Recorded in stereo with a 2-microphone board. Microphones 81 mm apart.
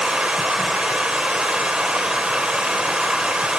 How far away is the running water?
About 0.9 m.